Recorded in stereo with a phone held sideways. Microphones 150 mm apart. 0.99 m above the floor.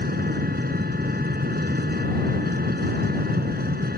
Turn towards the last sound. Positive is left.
turn(degrees=-75)  # may be behind; listen again after turning